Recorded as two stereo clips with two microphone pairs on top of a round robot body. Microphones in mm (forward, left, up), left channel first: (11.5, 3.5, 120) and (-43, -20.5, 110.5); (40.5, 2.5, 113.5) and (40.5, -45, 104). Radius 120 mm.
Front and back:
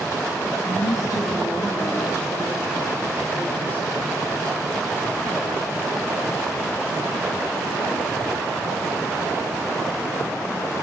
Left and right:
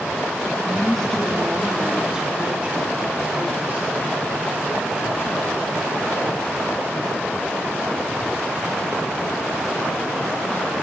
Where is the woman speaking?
15° left, 1.9 m; by 4.2 s 40° right, 4.5 m.